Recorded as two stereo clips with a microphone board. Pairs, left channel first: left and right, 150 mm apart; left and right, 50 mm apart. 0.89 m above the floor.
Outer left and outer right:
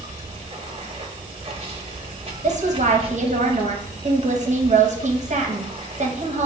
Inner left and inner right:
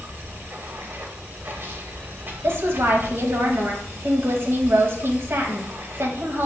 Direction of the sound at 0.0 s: 40° right (ahead or behind).